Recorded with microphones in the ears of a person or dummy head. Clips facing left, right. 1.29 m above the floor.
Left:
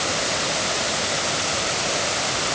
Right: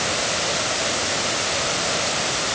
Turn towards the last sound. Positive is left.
No sound to turn to.